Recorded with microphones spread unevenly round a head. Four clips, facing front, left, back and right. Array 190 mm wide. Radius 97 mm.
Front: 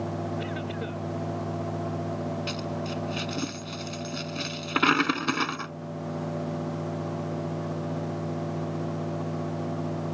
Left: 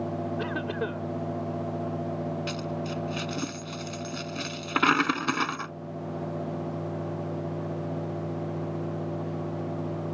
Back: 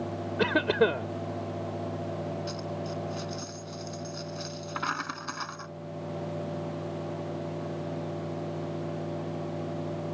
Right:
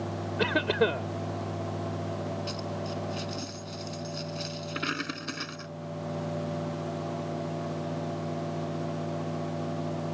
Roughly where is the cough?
Behind right.